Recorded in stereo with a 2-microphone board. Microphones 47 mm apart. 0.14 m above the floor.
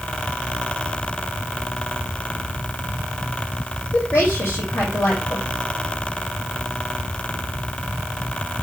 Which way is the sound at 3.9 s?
70° left (ahead or behind).